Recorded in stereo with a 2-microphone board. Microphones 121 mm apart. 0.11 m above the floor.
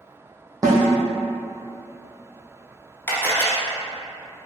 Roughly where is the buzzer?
I don't hear a buzzer.